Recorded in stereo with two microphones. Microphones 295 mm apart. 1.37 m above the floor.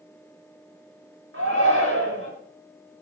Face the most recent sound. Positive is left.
turn(degrees=-50)  # may be behind; listen again after turning